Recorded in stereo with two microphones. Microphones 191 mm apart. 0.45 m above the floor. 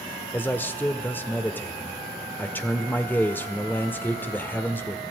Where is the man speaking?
10° left (ahead or behind), 1.5 m.